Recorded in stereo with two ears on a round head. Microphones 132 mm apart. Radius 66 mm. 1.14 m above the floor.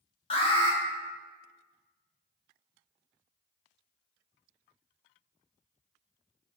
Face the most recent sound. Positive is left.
turn(degrees=40)  # may be behind; listen again after turning